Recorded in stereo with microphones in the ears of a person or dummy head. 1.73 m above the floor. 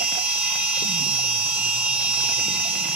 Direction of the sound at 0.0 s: 5° right (ahead or behind).